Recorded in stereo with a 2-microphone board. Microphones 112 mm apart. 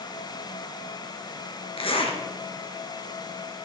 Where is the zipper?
55° left (ahead or behind), 1.7 m.